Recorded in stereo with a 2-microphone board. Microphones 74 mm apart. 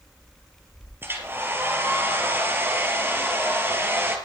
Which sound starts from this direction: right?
A hair dryer, at 1.0 s.